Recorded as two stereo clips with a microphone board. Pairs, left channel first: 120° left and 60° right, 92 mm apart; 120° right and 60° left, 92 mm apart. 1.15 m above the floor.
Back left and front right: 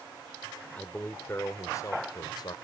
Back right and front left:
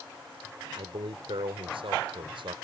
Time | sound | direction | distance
0.8 | a man speaking | 45° left | ?